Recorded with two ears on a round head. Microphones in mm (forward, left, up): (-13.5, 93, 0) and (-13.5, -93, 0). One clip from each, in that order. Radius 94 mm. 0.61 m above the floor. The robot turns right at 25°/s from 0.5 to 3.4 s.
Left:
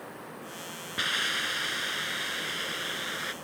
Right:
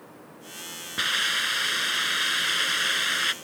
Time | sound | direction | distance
1.0 | a hiss | 165° right | ?